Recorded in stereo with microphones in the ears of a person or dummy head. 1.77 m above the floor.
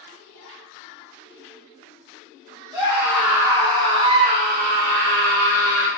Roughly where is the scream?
Centre.